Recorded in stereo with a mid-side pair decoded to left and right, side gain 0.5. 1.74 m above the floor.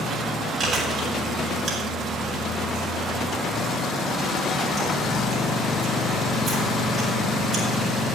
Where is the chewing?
55° right, 9 m.